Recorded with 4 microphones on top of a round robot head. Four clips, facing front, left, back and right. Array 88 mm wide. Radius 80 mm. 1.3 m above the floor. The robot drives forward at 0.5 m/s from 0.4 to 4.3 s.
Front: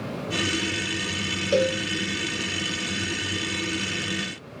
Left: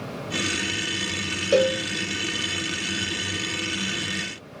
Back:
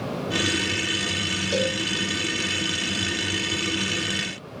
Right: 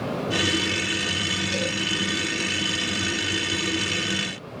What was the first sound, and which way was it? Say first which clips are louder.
A cowbell: left 13 dB, front 4 dB; 70° left.